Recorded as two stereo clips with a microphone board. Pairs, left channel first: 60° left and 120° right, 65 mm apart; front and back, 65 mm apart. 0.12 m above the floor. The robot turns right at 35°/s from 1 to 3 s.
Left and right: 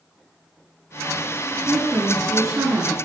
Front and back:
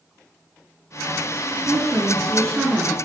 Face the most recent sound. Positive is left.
turn(degrees=-125)